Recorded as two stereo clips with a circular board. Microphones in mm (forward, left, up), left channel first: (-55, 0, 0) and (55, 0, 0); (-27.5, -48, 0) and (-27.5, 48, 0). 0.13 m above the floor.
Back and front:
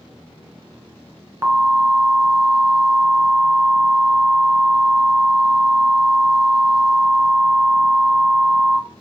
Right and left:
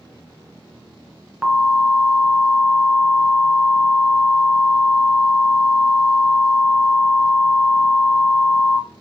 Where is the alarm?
30° left, 1.9 m.